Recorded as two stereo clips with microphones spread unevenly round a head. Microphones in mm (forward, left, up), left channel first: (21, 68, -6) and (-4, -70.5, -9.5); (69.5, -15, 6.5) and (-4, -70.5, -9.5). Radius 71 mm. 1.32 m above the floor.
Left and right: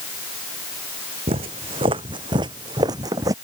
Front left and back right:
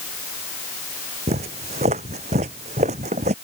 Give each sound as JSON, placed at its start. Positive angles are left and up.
{"t": 1.3, "sound": "footsteps", "azimuth_deg": -150}